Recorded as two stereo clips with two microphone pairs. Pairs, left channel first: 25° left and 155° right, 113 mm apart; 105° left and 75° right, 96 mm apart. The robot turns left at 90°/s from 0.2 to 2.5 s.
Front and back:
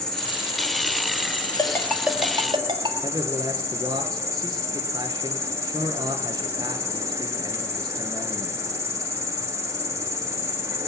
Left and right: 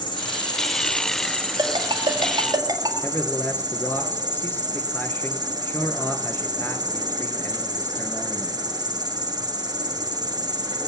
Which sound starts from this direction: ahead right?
A ringtone, at 1.6 s.